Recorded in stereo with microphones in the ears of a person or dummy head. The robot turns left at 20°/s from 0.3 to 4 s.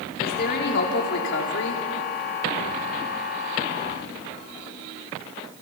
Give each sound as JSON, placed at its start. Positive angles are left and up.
{"t": 0.2, "sound": "a woman speaking", "azimuth_deg": 120, "distance_m": 3.0}